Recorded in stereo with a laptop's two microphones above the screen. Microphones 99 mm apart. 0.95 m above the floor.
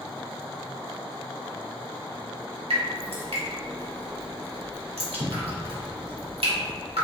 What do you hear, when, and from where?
2.7 s dripping: 80° right, 1.3 m